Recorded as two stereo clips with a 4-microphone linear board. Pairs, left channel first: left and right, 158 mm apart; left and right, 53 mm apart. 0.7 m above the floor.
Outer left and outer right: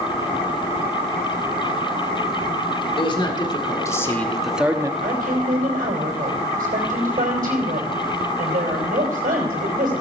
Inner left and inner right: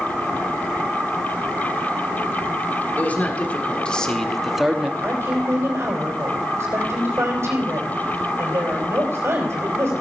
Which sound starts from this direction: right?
A woman speaking, at 5.0 s.